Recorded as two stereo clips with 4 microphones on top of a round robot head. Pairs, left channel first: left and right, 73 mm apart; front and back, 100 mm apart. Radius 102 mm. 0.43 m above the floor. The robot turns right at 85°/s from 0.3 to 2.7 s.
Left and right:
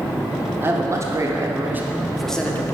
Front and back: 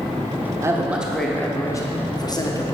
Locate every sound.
0.6 s a man speaking: 135° right, 1.3 m; by 2.7 s 45° left, 1.3 m